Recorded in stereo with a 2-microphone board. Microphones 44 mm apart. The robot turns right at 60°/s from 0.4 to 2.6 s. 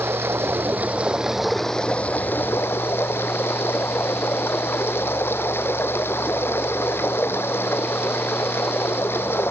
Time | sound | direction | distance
0.0 | running water | 65° right | ?